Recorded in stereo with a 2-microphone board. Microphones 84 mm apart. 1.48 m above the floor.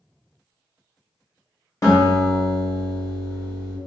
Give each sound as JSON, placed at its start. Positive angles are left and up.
{"t": 1.8, "sound": "a guitar", "side_deg": 40, "distance_m": 1.3}